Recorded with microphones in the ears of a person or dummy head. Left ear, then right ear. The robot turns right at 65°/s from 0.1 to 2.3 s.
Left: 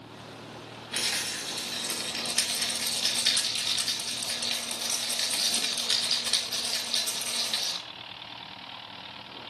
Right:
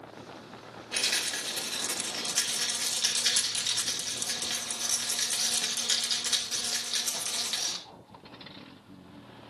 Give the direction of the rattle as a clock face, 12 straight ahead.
6 o'clock.